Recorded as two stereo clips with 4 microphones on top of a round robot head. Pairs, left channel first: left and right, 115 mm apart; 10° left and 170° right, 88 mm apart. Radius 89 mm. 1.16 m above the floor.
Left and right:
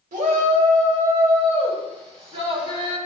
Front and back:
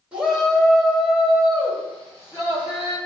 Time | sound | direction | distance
0.1 | a shout | 90° right | 1.9 m